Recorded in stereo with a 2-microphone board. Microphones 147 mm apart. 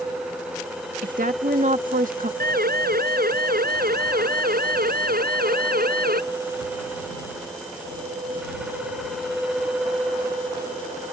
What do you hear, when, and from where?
1.0 s a woman speaking: 65° right (ahead or behind)
2.4 s a siren: 85° right